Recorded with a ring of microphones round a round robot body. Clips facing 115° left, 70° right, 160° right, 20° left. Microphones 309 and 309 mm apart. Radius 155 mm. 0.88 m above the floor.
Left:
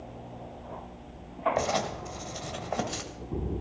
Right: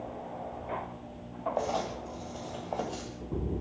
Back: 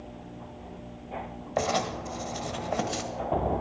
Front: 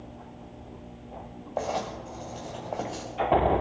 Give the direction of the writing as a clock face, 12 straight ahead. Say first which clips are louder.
Even, back 3 dB; 7 o'clock.